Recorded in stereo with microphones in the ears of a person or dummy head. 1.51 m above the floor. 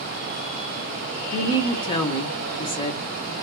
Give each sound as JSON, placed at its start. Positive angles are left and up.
{"t": 1.3, "sound": "a woman speaking", "side_deg": 20, "distance_m": 0.7}